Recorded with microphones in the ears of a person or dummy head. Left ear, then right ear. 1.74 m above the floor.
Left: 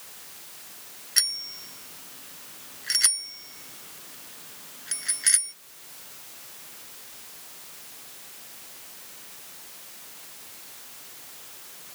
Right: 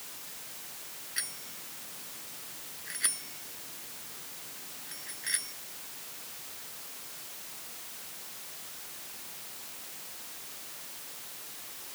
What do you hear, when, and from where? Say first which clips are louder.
1.2 s a bicycle bell: left 13 dB; 50° left (ahead or behind); by 5.5 s 60° left (ahead or behind)